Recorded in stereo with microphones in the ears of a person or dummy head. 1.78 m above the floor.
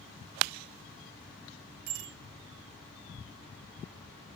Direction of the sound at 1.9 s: 50° right (ahead or behind).